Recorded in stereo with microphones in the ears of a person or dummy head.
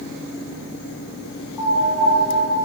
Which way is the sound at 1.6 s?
5° left (ahead or behind).